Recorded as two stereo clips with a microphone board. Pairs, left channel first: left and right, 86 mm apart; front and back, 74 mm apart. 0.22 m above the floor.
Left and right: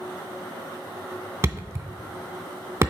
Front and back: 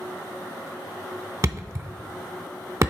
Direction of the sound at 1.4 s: 140° right.